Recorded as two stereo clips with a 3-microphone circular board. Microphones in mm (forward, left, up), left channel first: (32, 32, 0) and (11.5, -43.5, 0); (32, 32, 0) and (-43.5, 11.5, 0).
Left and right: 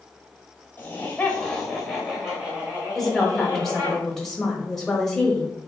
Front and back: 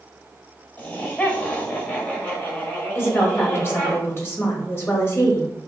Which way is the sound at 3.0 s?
5° right.